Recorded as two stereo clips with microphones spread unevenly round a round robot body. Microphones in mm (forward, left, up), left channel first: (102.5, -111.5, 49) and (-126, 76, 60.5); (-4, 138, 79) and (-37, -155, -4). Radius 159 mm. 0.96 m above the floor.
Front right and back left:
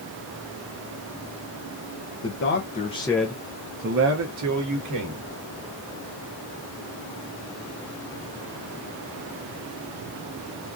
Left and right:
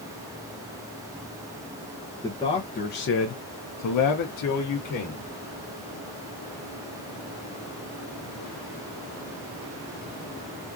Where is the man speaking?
5° right, 0.8 m; by 5.3 s 130° left, 1.2 m.